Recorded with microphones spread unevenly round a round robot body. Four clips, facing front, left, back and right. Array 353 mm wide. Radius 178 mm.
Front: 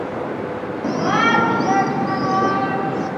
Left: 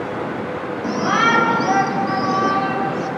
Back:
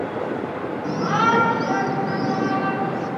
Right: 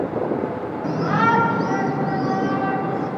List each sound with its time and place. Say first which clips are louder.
0.8 s a shout: left 1 dB, front 2 dB; 20° right, 4.5 m; by 3.1 s 10° right, 7 m